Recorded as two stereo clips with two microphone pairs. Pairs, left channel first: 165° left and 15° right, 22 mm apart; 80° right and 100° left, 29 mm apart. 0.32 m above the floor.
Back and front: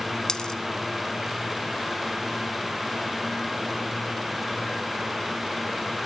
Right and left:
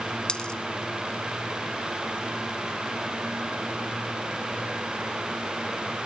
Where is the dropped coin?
140° right, 0.8 m.